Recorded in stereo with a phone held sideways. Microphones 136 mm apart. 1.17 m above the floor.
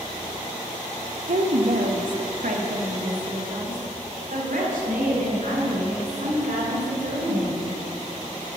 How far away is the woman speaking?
About 0.9 m.